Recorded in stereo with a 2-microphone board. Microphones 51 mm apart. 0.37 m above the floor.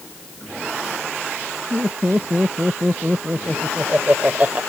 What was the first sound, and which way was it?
Laughter, 30° right (ahead or behind).